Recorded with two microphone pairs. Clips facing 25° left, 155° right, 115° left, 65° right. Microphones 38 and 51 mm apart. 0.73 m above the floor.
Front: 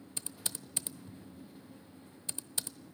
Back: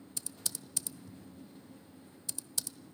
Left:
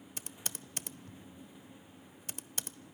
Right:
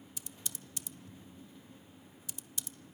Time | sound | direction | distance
0.2 | typing on a keyboard | 80° left | 0.7 m